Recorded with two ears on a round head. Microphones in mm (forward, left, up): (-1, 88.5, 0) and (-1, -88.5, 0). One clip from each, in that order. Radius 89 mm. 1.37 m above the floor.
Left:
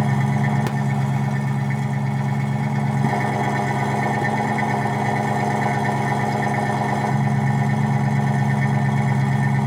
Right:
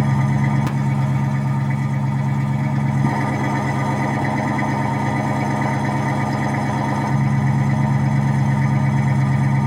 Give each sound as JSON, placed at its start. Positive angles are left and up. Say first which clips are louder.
{"t": 0.0, "sound": "an engine running", "louder": "right 1 dB", "side_deg": 25, "distance_m": 1.0}